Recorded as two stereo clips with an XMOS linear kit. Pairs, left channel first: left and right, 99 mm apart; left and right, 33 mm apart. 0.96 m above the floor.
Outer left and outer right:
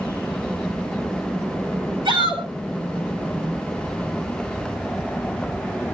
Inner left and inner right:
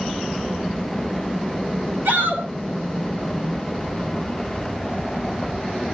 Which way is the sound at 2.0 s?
55° right (ahead or behind).